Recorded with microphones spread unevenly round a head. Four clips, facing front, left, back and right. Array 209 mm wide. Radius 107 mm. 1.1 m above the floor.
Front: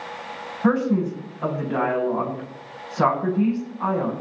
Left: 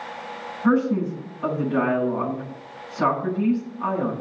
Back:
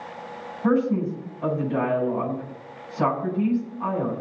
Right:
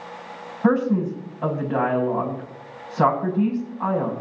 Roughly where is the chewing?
No chewing in this recording.